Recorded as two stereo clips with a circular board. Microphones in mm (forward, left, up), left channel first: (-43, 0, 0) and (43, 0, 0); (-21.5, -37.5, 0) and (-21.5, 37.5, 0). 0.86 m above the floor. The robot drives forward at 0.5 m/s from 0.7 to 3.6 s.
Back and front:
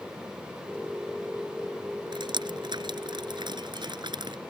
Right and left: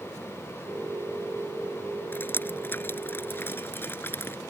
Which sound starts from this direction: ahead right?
Dripping, at 2.1 s.